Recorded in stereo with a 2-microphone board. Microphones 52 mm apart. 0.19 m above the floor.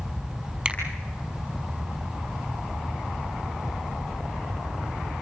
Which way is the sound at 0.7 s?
25° right (ahead or behind).